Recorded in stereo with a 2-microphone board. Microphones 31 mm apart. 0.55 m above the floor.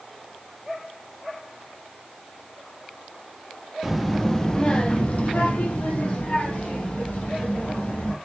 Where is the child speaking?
5° right (ahead or behind), 0.6 m; by 8.2 s 60° left (ahead or behind), 2 m.